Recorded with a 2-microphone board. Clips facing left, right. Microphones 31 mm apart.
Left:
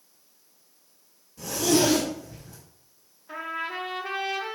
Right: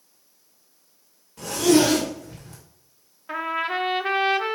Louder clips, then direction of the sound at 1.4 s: Right 5 dB; 70° right (ahead or behind).